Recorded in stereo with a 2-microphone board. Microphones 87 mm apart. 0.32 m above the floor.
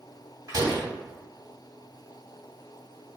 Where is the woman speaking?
I don't hear a woman speaking.